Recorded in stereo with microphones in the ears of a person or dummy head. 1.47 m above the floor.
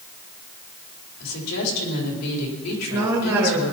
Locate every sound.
1.2 s a woman speaking: 90° left, 4 m
2.7 s a woman speaking: 15° right (ahead or behind), 2.5 m